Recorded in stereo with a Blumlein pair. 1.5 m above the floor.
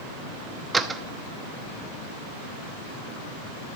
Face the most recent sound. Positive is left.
turn(degrees=-15)